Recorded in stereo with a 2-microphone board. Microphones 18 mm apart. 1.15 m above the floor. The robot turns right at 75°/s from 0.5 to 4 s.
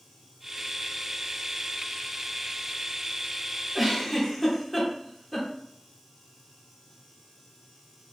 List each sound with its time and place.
3.8 s a giggle: 5° right (ahead or behind), 0.7 m; by 5.5 s 5° left (ahead or behind), 0.7 m